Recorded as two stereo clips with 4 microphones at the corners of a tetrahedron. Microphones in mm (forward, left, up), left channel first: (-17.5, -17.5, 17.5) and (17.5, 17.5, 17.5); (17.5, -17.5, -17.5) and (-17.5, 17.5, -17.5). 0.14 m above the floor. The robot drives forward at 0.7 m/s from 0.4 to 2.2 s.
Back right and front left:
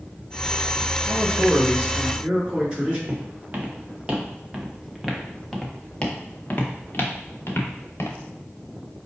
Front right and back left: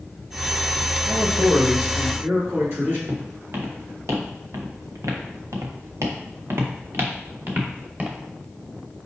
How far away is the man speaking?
About 2 m.